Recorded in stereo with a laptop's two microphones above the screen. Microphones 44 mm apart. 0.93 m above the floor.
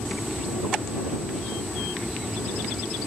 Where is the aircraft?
Centre (ahead or behind).